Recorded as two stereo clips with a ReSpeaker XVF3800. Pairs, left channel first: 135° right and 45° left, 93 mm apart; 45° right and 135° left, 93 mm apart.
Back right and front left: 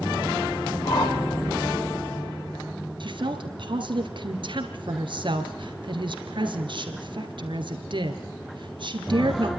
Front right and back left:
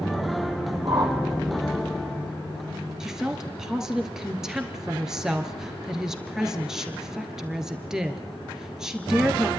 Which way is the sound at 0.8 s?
175° right.